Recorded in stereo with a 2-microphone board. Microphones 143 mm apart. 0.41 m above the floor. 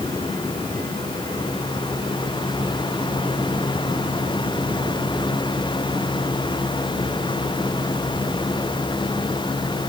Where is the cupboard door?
I don't hear a cupboard door.